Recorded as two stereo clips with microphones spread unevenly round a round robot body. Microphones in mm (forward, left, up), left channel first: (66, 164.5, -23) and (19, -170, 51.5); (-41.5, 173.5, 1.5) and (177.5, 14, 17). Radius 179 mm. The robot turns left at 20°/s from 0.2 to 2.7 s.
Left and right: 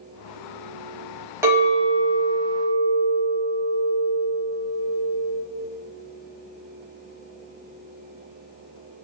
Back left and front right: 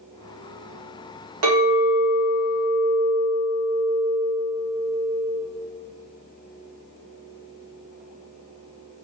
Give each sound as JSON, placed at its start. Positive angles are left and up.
{"t": 1.4, "sound": "a clink", "azimuth_deg": -10, "distance_m": 1.0}